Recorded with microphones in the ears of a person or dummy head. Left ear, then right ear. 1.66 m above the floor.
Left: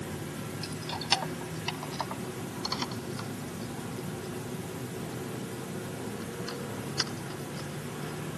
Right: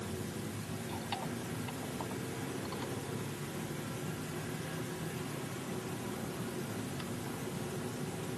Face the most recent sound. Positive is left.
turn(degrees=65)  # may be behind; listen again after turning